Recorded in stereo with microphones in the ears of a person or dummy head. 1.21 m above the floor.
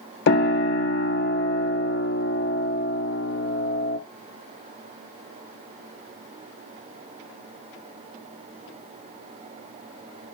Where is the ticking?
I don't hear ticking.